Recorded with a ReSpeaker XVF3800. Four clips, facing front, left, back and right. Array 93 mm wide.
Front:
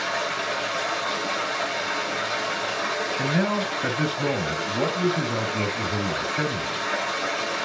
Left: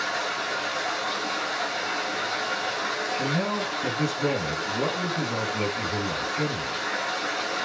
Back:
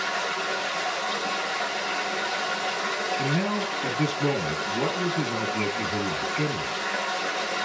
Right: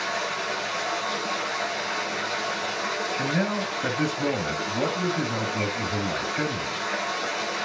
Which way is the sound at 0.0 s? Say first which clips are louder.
Even, front 1 dB; 10° right.